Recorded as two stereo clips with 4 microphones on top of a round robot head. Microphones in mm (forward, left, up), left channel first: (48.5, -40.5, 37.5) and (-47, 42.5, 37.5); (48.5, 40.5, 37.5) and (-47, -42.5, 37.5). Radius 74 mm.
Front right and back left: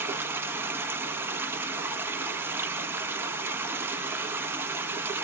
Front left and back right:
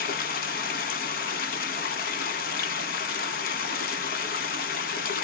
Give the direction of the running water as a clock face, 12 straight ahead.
10 o'clock.